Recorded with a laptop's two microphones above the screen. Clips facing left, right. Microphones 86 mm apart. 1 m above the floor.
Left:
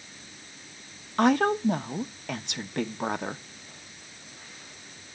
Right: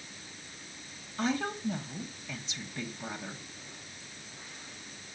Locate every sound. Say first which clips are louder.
1.2 s a woman speaking: left 10 dB; 65° left (ahead or behind), 0.7 m